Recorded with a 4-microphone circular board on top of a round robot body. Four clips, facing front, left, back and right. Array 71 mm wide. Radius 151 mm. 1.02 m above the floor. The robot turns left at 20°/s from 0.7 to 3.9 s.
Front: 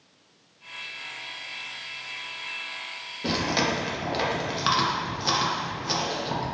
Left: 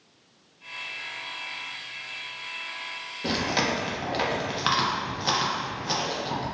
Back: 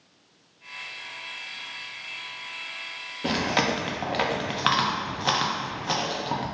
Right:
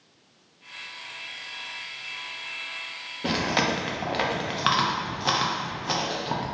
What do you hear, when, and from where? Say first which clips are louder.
3.2 s chewing: right 1 dB, back 1 dB; 140° right, 0.8 m; by 6.4 s 155° right, 0.8 m